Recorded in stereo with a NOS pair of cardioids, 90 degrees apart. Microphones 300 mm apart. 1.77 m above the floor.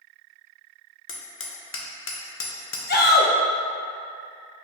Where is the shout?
35° left, 1.2 m.